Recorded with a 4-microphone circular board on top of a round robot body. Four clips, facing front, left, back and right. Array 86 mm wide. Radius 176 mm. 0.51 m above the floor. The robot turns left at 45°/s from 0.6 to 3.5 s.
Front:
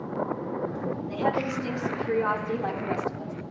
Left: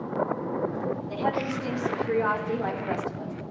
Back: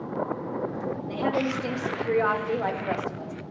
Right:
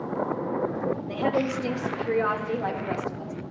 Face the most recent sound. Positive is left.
turn(degrees=145)